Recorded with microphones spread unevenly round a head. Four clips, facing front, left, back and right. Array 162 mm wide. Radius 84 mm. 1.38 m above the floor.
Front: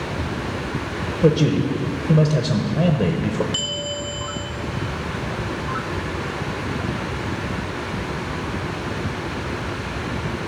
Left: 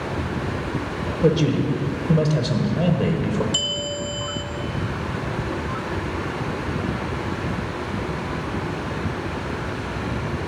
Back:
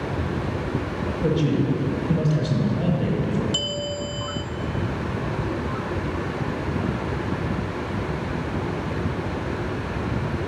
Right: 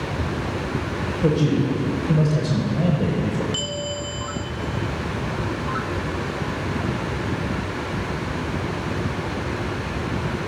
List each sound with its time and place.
1.2 s a man speaking: 10° left, 0.9 m
3.5 s a bell: 155° left, 0.8 m